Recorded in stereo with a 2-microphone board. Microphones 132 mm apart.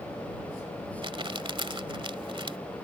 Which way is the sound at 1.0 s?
40° right (ahead or behind).